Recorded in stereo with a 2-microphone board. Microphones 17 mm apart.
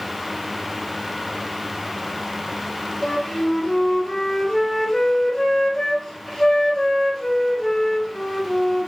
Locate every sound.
3.0 s a flute: 30° left (ahead or behind), 1.0 m